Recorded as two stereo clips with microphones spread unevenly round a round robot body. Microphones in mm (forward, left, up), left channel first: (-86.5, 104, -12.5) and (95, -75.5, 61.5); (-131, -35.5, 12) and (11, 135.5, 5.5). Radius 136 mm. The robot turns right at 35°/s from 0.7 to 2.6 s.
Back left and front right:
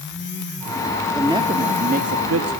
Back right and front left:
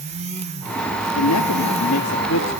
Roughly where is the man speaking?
Behind right.